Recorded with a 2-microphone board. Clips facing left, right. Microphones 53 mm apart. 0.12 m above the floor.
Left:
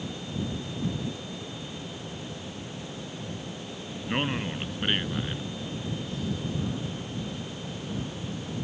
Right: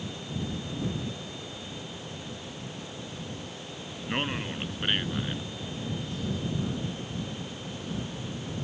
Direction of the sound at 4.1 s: 5° left (ahead or behind).